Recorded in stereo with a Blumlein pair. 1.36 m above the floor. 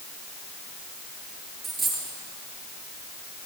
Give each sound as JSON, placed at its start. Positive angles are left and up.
{"t": 1.6, "sound": "a dropped coin", "azimuth_deg": -10, "distance_m": 7.5}